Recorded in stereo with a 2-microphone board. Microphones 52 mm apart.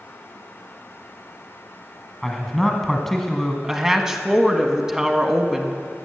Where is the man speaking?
5° left (ahead or behind), 1.4 m.